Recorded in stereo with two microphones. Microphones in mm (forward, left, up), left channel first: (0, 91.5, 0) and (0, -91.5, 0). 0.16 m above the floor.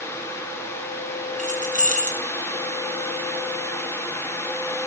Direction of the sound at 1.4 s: 45° right (ahead or behind).